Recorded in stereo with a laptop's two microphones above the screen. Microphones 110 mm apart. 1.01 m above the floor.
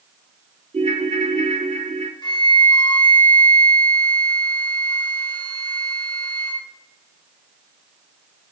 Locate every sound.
0.7 s a ringtone: 70° right (ahead or behind), 0.6 m
2.2 s a flute: 45° left (ahead or behind), 1.3 m